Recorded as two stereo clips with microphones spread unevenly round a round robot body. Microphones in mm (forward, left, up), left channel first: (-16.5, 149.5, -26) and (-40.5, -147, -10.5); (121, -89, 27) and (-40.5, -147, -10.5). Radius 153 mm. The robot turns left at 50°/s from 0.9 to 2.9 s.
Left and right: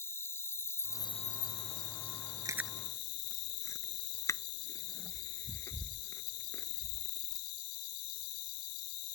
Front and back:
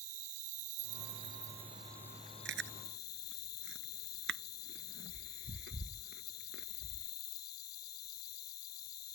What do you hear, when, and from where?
0.0 s an insect: 165° left; by 9.2 s 65° left
2.5 s chewing: 170° right; by 7.1 s 165° left